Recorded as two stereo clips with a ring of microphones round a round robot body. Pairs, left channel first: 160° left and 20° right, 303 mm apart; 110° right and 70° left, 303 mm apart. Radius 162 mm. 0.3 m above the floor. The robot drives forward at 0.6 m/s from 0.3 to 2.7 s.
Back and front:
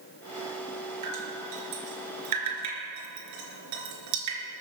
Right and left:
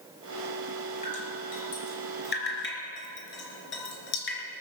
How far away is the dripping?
About 4 m.